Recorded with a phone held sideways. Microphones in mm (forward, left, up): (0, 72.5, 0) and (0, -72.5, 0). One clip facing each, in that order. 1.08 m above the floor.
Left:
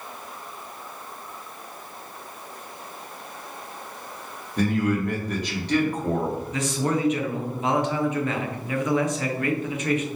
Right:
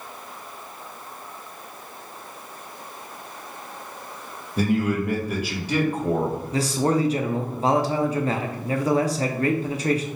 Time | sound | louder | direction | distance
4.6 | a man speaking | right 1 dB | 5° right (ahead or behind) | 1.0 m
6.5 | a man speaking | right 5 dB | 35° right (ahead or behind) | 0.6 m